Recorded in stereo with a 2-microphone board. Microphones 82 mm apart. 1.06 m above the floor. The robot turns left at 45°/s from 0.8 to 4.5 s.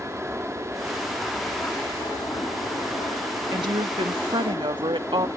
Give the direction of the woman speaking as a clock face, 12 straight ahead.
2 o'clock.